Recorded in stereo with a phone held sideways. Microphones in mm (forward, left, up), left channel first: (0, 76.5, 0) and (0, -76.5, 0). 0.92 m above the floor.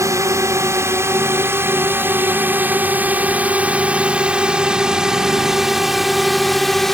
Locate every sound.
0.0 s a drone: 20° right (ahead or behind); by 7.0 s centre (ahead or behind)